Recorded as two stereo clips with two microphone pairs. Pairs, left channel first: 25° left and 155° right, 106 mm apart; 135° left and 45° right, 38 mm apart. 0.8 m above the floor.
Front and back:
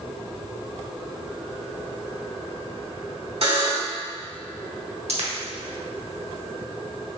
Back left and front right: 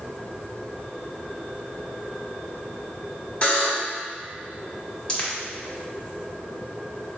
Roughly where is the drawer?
No drawer in this recording.